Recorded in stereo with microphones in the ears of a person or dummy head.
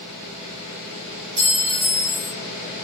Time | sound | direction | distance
1.4 | a clink | 60° right (ahead or behind) | 1.6 m